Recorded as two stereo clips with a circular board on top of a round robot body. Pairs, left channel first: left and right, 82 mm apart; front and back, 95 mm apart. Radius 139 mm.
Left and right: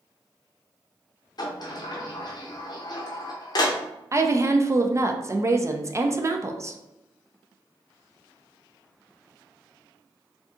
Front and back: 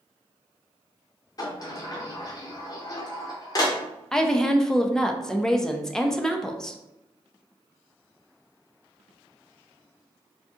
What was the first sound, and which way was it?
A sliding door, 55° left.